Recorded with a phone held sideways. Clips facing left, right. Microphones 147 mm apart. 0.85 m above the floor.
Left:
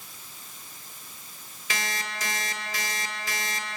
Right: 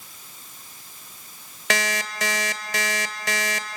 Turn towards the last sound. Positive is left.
turn(degrees=-80)